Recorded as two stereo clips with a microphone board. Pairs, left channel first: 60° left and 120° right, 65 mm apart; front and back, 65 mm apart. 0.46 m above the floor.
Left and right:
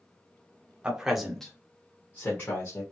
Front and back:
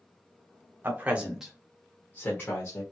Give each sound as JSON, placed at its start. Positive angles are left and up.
{"t": 0.8, "sound": "a man speaking", "azimuth_deg": 180, "distance_m": 1.1}